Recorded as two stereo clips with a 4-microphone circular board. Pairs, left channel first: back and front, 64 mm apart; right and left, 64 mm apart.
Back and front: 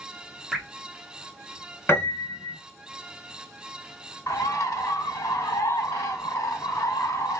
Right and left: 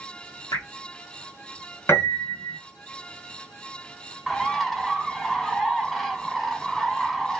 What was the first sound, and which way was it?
Dripping, 90° right.